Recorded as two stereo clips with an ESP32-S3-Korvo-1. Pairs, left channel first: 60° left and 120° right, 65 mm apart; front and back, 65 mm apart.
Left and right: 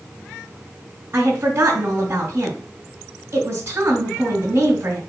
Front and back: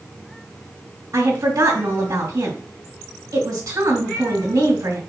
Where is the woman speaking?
170° right, 3.5 m.